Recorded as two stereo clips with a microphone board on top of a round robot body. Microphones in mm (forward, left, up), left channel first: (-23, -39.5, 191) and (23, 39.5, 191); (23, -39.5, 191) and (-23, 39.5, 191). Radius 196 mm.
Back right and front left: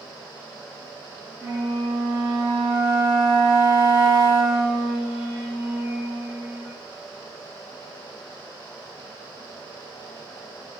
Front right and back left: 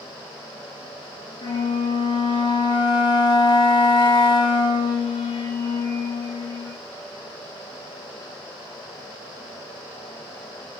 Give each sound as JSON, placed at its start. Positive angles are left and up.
{"t": 1.4, "sound": "a flute", "azimuth_deg": -25, "distance_m": 0.9}